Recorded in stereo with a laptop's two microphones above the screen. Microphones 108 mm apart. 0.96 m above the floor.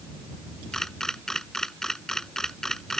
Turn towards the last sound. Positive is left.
turn(degrees=5)  # may be behind; listen again after turning